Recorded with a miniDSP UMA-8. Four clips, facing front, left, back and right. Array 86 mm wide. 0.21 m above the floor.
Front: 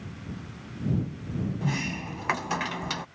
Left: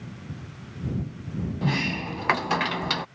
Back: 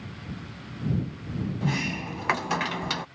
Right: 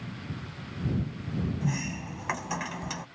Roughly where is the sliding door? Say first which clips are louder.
Left 6 dB, back 2 dB; left.